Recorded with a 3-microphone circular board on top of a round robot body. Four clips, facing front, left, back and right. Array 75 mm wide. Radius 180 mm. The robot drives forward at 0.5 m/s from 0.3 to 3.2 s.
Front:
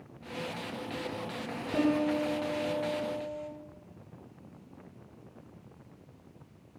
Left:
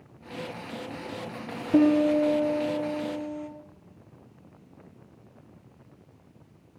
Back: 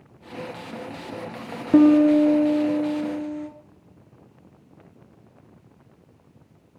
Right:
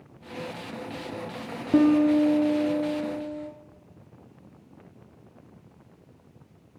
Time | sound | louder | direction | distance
1.7 | a piano | right 1 dB, back 14 dB | 165° right | 1.7 m